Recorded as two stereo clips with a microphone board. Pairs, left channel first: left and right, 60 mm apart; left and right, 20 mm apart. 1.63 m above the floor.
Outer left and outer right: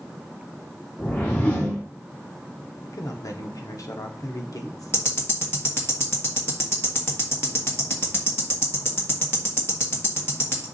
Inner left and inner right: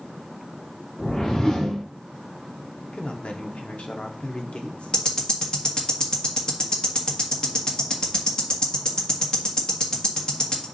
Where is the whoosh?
25° left (ahead or behind), 1.8 m.